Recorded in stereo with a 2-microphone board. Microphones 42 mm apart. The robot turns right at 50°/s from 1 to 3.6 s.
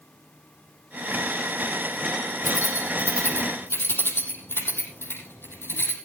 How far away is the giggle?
No giggle in this recording.